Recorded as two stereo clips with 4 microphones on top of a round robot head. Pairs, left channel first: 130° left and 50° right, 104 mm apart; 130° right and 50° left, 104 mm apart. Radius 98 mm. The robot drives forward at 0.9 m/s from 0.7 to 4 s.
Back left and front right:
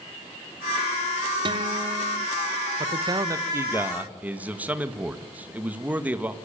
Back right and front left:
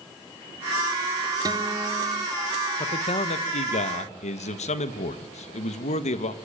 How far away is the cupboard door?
No cupboard door in this recording.